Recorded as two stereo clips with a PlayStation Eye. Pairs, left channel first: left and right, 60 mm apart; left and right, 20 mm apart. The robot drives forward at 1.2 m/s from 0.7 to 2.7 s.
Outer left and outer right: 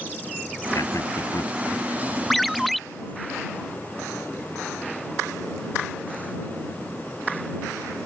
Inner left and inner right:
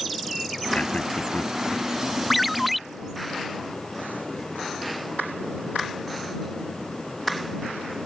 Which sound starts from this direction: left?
A man speaking, at 0.7 s.